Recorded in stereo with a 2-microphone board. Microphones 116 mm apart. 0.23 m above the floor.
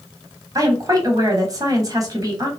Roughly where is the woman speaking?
Right.